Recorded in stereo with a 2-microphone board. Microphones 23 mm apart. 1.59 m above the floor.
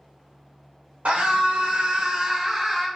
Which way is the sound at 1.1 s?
90° right.